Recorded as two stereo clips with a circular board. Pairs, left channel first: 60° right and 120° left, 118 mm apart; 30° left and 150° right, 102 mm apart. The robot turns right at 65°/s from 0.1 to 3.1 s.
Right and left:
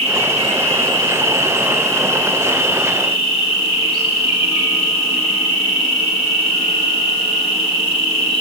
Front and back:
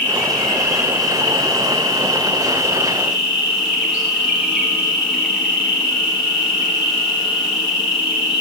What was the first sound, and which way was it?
An insect, 90° left.